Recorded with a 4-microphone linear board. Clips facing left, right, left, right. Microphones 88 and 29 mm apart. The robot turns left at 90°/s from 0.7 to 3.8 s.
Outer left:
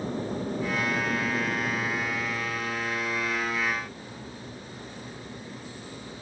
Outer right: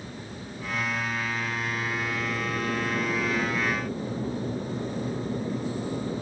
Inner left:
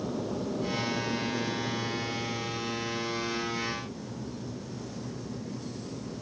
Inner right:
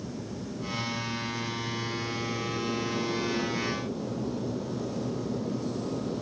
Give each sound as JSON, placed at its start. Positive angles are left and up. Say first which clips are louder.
{"t": 0.0, "sound": "an aircraft", "louder": "outer left 9 dB, inner left 5 dB", "azimuth_deg": 135}